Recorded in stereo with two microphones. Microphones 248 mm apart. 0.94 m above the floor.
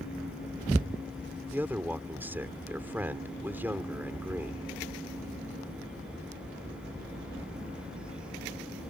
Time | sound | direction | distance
1.5 | a man speaking | 10° right (ahead or behind) | ?